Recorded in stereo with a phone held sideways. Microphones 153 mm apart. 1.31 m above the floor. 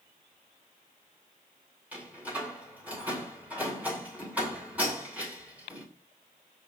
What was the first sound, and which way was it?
A door slam, 10° right (ahead or behind).